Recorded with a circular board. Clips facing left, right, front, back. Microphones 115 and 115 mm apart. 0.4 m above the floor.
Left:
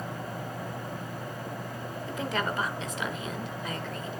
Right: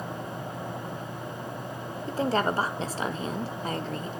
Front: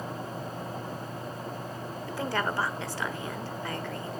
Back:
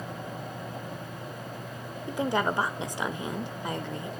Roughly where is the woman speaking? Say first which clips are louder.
Right 6 dB, back 4 dB; behind right.